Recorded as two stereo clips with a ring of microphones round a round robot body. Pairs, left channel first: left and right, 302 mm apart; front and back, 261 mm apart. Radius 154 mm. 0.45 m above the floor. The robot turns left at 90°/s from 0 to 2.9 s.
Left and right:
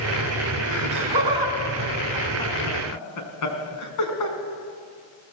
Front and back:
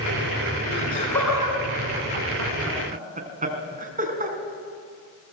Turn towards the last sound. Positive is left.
turn(degrees=120)